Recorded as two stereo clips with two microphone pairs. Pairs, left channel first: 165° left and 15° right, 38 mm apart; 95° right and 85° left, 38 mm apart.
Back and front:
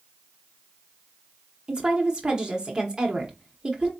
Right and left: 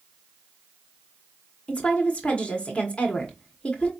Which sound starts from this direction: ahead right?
A woman speaking, at 1.7 s.